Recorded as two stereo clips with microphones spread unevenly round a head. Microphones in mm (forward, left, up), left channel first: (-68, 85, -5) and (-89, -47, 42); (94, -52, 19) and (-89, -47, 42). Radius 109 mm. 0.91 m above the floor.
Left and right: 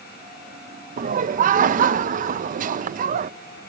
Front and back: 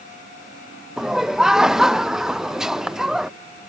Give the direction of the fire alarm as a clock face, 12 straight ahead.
No fire alarm in this recording.